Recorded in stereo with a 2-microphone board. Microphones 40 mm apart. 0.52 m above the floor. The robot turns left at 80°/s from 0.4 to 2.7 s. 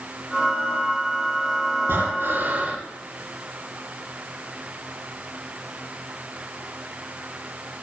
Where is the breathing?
70° right, 8.5 m; by 2.8 s 140° right, 8.5 m.